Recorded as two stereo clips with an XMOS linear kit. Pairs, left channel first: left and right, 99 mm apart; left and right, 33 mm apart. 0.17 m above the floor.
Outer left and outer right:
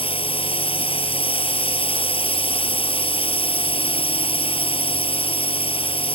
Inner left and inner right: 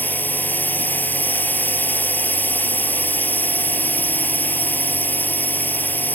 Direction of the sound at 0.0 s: 70° left (ahead or behind).